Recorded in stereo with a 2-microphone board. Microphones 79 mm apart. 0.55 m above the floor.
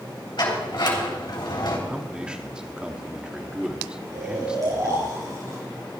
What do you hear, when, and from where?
0.4 s a sliding door: 65° left (ahead or behind), 3.5 m
1.9 s a man speaking: 10° right (ahead or behind), 1.1 m
4.1 s snoring: 45° right (ahead or behind), 6.5 m